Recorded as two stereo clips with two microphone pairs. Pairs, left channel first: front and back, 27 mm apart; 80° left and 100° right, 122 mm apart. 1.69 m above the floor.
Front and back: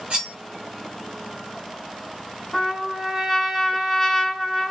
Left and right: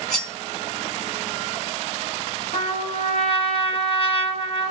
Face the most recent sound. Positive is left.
turn(degrees=85)